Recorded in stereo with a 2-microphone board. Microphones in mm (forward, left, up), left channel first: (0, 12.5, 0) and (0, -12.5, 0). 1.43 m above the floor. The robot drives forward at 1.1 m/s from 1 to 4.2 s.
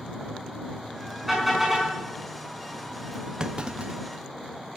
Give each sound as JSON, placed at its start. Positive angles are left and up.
{"t": 1.3, "sound": "a car horn", "side_deg": -5, "distance_m": 5.5}
{"t": 3.4, "sound": "a clunk", "side_deg": -30, "distance_m": 0.9}